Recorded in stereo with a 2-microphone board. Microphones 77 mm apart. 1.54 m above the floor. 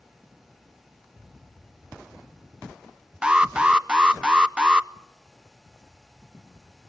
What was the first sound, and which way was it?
An alarm, 10° right (ahead or behind).